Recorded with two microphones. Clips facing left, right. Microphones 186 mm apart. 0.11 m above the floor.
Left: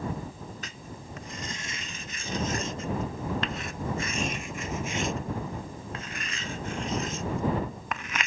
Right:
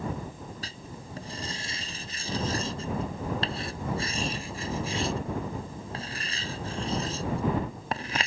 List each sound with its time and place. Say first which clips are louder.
0.6 s writing: even; 35° right (ahead or behind)